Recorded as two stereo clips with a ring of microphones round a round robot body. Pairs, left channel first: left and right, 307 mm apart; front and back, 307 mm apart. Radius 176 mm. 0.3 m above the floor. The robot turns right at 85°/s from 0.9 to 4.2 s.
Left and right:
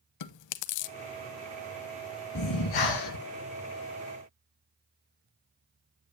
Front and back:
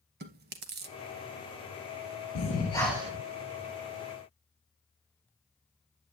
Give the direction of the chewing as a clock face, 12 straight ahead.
8 o'clock.